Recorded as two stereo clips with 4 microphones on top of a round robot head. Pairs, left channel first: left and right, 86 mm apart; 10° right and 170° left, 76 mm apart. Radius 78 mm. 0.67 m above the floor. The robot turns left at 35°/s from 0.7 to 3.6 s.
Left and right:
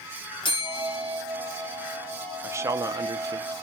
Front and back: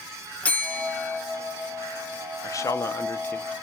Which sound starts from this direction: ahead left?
A bell, at 0.4 s.